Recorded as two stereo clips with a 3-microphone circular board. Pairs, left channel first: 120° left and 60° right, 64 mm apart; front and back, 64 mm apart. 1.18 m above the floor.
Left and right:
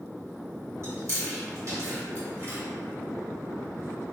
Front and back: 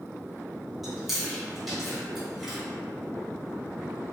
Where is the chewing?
90° right, 1.4 m.